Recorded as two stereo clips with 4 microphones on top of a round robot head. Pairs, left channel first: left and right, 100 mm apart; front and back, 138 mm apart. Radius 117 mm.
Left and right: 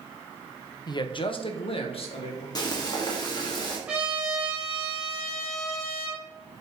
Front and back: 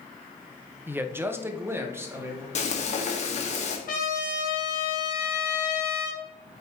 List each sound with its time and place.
0.9 s a man speaking: 110° left, 0.9 m; by 2.5 s 105° left, 2.5 m
2.5 s frying: 35° left, 1.8 m
3.9 s a trumpet: 10° right, 2.5 m